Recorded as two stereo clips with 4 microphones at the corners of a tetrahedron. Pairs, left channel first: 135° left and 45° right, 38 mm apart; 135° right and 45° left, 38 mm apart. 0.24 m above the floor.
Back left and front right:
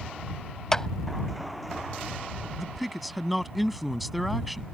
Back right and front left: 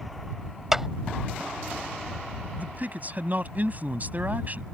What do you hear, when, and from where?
0.7 s a clap: 105° left
2.6 s a man speaking: 45° left